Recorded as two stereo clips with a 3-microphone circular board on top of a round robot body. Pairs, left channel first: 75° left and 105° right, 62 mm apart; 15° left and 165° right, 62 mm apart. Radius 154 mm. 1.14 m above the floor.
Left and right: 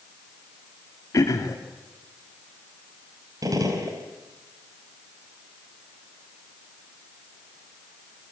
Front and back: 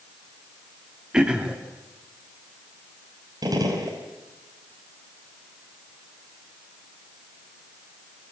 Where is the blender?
No blender in this recording.